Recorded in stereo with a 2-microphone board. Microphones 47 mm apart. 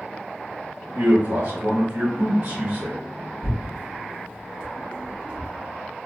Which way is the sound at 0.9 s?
85° right.